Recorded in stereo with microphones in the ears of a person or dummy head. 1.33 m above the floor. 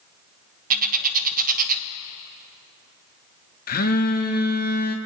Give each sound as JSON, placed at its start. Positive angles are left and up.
{"t": 0.7, "sound": "a bird", "side_deg": -45, "distance_m": 0.9}
{"t": 3.7, "sound": "a phone buzzing", "side_deg": 50, "distance_m": 0.9}